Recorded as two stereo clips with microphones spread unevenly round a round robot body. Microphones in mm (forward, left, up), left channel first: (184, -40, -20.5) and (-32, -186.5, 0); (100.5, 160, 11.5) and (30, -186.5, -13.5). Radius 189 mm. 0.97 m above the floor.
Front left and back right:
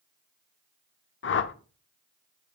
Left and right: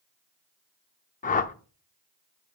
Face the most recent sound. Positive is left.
turn(degrees=30)